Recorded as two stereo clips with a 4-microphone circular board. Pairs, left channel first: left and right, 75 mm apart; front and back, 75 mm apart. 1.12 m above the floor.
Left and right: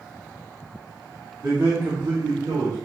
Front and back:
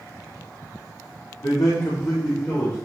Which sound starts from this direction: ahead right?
A man speaking, at 1.4 s.